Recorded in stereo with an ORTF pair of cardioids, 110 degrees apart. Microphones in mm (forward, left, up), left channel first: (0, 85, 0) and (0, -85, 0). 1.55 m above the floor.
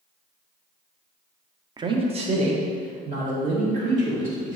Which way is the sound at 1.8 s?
25° right.